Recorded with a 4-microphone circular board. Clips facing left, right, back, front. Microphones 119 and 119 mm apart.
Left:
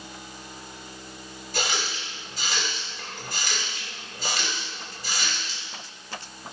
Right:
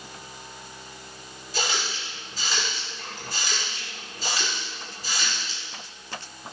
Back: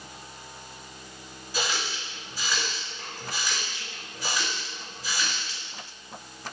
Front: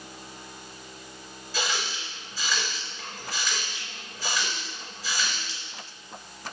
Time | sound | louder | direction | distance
1.5 | a running tap | even, even | 110° left | 1.7 m